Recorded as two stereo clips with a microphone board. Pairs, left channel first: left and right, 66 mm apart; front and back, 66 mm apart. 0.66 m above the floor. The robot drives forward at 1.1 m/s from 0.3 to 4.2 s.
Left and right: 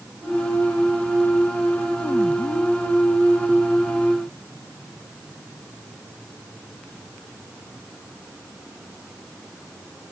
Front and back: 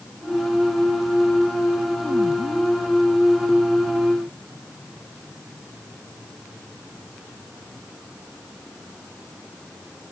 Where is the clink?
No clink in this recording.